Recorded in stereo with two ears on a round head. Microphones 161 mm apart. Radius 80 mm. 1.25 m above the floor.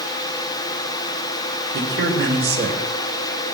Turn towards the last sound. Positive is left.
turn(degrees=-65)  # may be behind; listen again after turning